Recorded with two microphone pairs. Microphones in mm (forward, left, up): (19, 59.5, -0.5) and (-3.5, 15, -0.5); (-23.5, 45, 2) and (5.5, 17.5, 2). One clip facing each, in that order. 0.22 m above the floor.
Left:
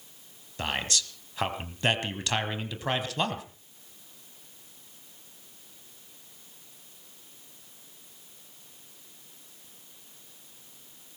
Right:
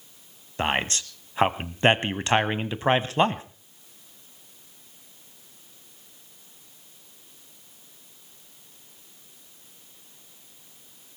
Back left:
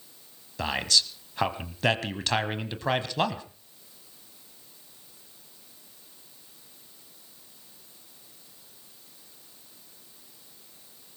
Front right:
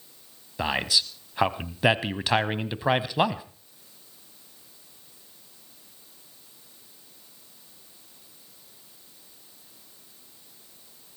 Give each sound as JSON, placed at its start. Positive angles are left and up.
{"t": 0.6, "sound": "a man speaking", "azimuth_deg": -115, "distance_m": 1.1}